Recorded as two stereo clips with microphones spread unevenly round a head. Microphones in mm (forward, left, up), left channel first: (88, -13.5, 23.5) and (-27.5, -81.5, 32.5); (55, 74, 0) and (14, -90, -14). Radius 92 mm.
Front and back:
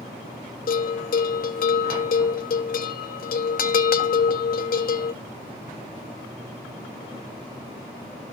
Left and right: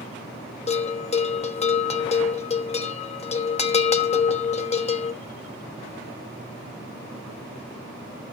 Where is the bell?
20° left, 1.3 m.